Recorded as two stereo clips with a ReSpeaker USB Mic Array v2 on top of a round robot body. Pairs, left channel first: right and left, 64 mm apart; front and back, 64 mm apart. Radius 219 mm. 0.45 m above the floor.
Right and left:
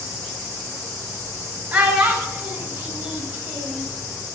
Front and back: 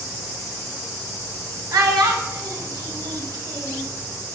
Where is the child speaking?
155° left, 1.6 m.